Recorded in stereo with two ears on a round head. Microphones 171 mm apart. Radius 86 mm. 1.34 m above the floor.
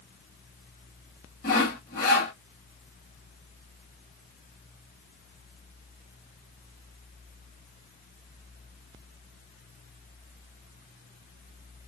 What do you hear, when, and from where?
1.4 s sawing: 50° left (ahead or behind), 2.5 m